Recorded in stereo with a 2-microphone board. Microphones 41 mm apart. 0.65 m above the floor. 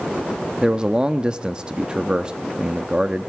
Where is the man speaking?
25° right (ahead or behind), 0.9 m.